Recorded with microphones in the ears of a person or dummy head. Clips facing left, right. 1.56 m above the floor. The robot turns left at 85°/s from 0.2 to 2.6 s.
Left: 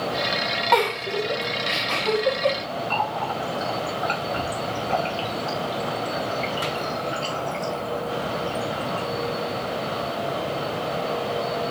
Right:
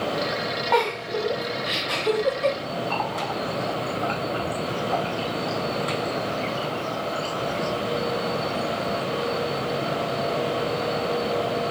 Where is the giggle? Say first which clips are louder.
Left 2 dB; 55° left (ahead or behind), 2 m; by 2.5 s 55° right (ahead or behind), 2 m.